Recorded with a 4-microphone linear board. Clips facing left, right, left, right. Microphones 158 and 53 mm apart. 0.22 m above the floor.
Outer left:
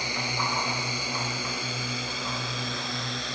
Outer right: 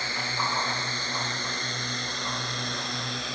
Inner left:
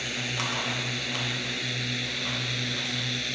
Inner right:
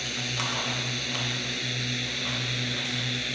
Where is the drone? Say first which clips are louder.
Outer left 1 dB, inner left 1 dB; 15° left (ahead or behind); by 3.4 s centre (ahead or behind).